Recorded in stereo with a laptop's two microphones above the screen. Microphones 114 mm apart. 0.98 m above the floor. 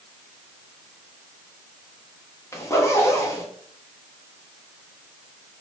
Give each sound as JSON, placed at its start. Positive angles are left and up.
{"t": 2.5, "sound": "a zipper", "side_deg": 25, "distance_m": 0.6}